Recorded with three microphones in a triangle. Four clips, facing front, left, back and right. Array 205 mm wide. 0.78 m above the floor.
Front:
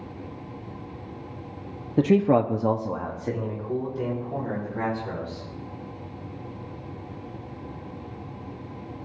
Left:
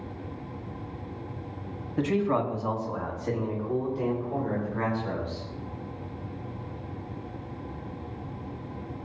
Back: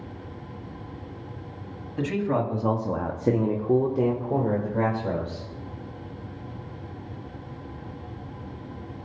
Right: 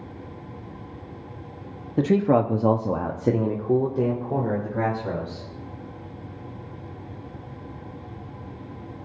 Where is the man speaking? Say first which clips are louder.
Right 6 dB, front 6 dB; 25° right, 1.0 m; by 5.5 s 155° right, 3 m.